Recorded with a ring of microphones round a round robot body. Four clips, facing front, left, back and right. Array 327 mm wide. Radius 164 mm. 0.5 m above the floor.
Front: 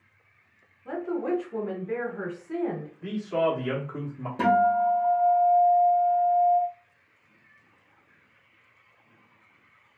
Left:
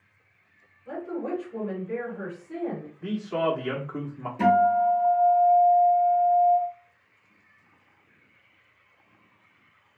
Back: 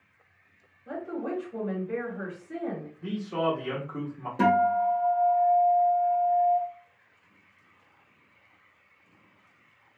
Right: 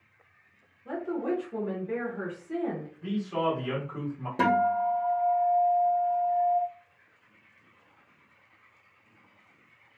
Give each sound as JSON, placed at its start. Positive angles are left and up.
{"t": 0.8, "sound": "a woman speaking", "azimuth_deg": -25, "distance_m": 1.5}
{"t": 3.0, "sound": "a man speaking", "azimuth_deg": 85, "distance_m": 1.2}
{"t": 4.4, "sound": "a guitar", "azimuth_deg": -90, "distance_m": 1.0}